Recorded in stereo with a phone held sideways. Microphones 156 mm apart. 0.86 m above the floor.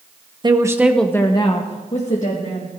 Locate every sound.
0.4 s a woman speaking: 30° right (ahead or behind), 1.0 m; by 2.7 s 55° left (ahead or behind), 2 m